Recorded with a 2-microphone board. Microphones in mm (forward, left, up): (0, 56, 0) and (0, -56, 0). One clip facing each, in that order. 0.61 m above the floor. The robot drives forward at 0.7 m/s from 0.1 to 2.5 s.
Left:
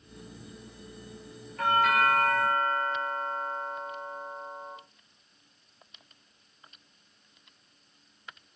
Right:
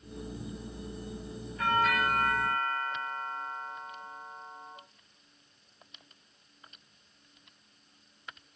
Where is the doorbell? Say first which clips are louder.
Left 3 dB; 65° left (ahead or behind), 2.5 m.